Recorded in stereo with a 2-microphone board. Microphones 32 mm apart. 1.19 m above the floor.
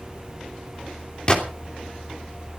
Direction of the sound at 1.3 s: 30° left (ahead or behind).